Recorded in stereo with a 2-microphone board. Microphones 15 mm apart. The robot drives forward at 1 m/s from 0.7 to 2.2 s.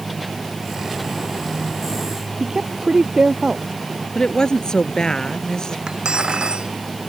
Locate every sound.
2.4 s a woman speaking: 40° right (ahead or behind)
4.2 s a woman speaking: 50° left (ahead or behind)
5.9 s cutlery clinking: 75° right (ahead or behind)